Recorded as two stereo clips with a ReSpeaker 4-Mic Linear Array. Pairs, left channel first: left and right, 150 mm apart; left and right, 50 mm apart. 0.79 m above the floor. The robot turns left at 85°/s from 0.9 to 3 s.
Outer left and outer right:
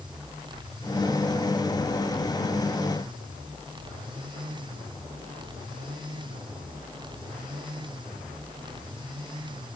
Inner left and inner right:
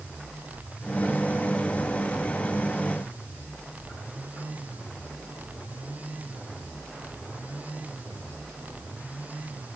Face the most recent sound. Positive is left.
No sound to turn to.